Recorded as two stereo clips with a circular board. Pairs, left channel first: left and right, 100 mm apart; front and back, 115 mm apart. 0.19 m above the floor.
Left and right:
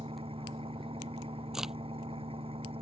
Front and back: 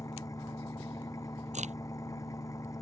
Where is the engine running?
60° right.